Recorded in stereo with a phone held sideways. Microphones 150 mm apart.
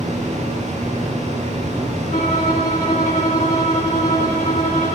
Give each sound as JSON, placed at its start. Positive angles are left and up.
{"t": 0.0, "sound": "a fan", "side_deg": -50, "distance_m": 6.0}
{"t": 2.1, "sound": "a violin", "side_deg": 50, "distance_m": 2.5}